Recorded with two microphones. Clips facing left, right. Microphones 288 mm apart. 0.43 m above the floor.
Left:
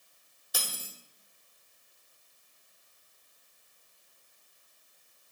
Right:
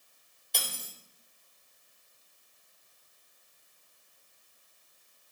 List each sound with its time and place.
0.5 s cutlery clinking: 5° left (ahead or behind), 0.6 m